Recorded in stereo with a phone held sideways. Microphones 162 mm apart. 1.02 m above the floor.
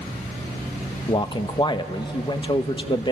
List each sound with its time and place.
1.1 s a man speaking: 30° left (ahead or behind), 1.1 m